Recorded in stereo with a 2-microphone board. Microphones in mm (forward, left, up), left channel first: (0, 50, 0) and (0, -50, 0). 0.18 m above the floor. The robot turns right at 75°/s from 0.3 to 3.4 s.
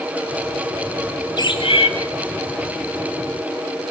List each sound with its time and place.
1.4 s a bird: 45° left, 1.9 m; by 1.9 s 85° left, 1.9 m